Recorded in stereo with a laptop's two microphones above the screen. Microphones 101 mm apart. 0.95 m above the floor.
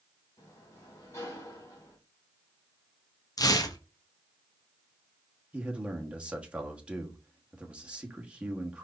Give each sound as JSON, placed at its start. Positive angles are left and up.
{"t": 0.4, "sound": "a sliding door", "side_deg": 30, "distance_m": 2.5}
{"t": 3.4, "sound": "tearing paper", "side_deg": 40, "distance_m": 0.8}
{"t": 5.5, "sound": "a man speaking", "side_deg": -10, "distance_m": 1.3}